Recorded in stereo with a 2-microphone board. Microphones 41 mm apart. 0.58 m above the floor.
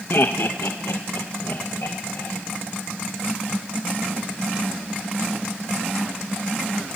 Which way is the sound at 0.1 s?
55° left (ahead or behind).